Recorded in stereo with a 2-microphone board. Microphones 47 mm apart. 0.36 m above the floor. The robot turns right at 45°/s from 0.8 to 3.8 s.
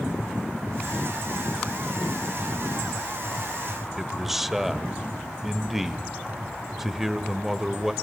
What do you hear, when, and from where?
4.0 s a man speaking: 5° right (ahead or behind), 1.0 m